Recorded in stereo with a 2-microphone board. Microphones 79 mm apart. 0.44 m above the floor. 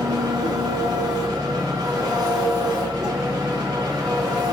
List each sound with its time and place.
0.0 s an engine running: 55° right (ahead or behind), 1.9 m